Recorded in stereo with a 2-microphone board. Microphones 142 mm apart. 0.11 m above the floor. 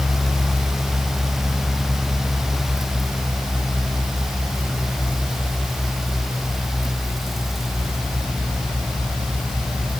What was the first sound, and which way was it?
Only background noise.